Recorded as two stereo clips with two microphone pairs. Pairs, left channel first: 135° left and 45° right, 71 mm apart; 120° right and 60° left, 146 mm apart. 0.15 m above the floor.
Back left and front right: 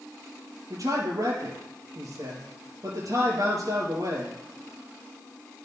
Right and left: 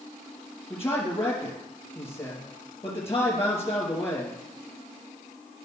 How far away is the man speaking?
About 3 m.